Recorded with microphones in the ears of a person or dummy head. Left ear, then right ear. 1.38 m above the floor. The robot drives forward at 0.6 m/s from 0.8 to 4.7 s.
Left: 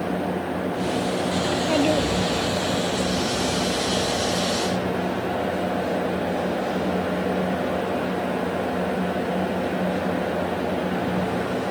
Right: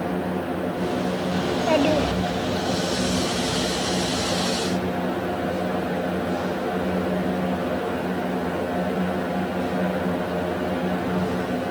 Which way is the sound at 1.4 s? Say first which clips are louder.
Right 2 dB; 15° right (ahead or behind).